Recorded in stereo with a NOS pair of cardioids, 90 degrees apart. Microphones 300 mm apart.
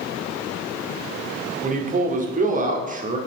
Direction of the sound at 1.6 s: 25° right.